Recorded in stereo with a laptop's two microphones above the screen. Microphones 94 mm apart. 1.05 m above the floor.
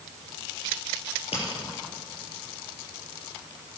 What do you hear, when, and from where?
1.1 s a crack: 75° left (ahead or behind), 5 m